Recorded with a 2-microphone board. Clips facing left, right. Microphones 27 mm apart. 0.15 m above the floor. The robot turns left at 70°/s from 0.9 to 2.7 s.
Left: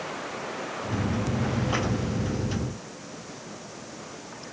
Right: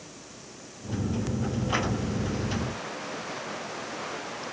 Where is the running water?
95° left; by 4.5 s 30° right.